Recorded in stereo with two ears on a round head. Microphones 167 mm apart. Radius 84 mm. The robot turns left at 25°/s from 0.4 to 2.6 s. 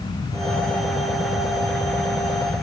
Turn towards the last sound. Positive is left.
No sound to turn to.